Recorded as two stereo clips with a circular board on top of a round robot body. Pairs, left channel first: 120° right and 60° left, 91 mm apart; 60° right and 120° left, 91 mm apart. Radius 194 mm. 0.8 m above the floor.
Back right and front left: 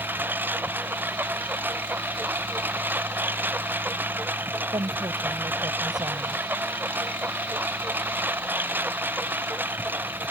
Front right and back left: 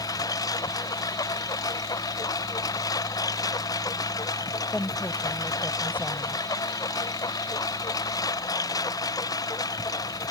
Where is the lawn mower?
10° right.